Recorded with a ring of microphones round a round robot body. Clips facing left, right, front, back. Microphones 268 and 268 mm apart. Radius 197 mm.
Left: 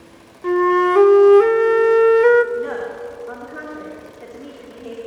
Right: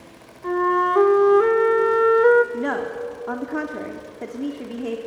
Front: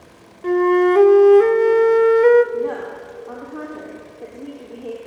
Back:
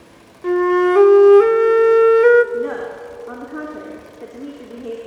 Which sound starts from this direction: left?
A flute, at 0.4 s.